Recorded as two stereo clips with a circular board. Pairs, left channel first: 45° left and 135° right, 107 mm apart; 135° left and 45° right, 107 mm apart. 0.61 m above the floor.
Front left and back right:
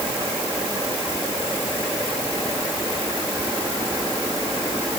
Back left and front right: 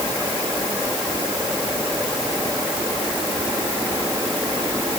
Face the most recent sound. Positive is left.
No sound to turn to.